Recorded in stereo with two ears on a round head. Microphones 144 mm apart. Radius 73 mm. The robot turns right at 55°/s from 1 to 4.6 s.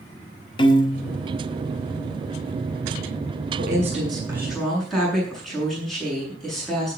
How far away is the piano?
About 1.5 m.